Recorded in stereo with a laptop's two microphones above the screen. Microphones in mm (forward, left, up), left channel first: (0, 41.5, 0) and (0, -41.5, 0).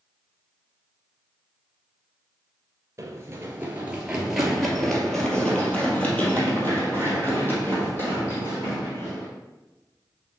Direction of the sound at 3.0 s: 35° right (ahead or behind).